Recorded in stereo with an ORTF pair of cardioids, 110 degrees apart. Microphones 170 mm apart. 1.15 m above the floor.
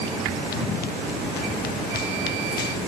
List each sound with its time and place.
0.5 s running footsteps: 70° left